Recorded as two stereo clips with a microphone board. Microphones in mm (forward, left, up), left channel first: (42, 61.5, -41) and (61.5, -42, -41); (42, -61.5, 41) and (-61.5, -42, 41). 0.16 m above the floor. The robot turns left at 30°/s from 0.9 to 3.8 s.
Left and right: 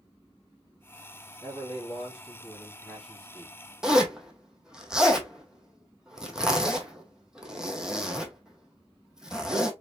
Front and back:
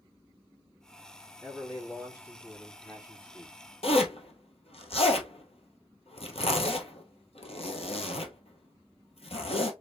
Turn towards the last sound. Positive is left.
turn(degrees=5)